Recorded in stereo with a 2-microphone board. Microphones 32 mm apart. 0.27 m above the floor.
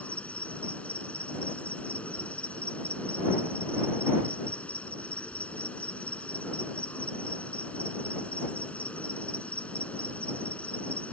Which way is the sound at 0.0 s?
45° left (ahead or behind).